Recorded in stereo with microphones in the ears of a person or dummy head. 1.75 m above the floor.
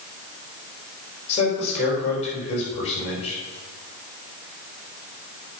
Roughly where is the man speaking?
Left.